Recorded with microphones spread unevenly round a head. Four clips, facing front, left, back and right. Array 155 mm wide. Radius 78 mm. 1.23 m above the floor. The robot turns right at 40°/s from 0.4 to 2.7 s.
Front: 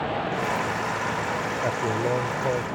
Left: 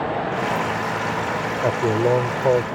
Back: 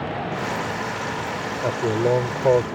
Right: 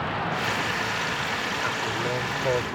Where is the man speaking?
110° left; by 2.6 s 150° left.